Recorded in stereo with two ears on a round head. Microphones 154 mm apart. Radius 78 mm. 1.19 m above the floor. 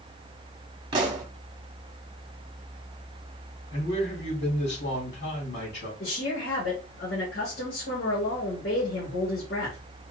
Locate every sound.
0.9 s a pop: 25° right (ahead or behind), 1.0 m
3.7 s a man speaking: 70° left (ahead or behind), 2.5 m
6.0 s a woman speaking: 65° left (ahead or behind), 1.9 m